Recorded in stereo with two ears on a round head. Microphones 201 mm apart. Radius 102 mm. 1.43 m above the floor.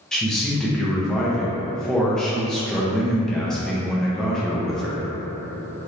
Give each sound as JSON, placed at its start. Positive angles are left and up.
{"t": 0.1, "sound": "a man speaking", "side_deg": 5, "distance_m": 0.6}